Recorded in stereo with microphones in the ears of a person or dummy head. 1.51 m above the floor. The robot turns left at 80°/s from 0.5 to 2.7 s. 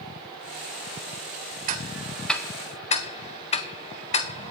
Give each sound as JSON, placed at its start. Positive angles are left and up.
{"t": 1.7, "sound": "ticking", "side_deg": -50, "distance_m": 0.7}